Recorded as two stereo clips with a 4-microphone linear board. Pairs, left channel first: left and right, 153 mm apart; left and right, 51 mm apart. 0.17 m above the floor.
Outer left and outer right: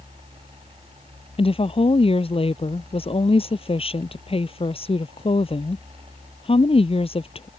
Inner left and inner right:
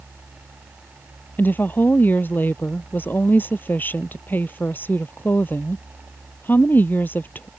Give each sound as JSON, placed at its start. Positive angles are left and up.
{"t": 1.4, "sound": "a woman speaking", "side_deg": 35}